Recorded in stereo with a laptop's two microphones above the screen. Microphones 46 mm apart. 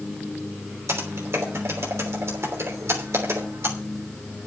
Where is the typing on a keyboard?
75° right (ahead or behind), 3 m.